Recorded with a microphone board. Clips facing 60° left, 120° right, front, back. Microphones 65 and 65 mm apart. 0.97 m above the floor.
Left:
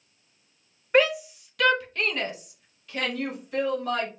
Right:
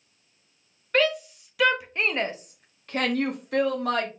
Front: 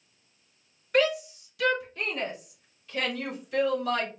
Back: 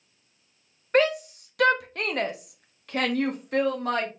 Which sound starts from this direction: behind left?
A shout, at 0.9 s.